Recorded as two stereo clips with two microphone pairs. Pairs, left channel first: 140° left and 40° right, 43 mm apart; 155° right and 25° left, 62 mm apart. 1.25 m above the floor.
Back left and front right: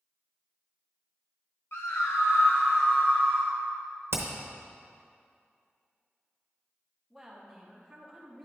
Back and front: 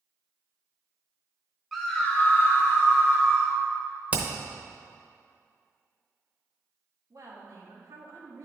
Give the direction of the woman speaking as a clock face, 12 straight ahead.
10 o'clock.